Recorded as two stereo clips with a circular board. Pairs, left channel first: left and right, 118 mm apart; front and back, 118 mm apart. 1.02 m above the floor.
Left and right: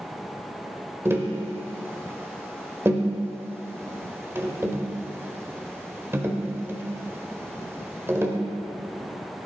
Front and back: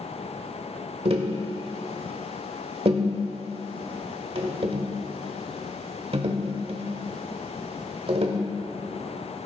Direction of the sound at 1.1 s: 155° right.